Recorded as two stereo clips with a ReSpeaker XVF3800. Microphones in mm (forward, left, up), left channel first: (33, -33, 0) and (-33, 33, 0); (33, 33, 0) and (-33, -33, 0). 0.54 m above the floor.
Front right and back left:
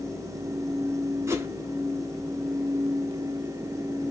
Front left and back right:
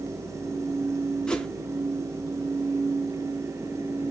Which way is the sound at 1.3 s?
115° left.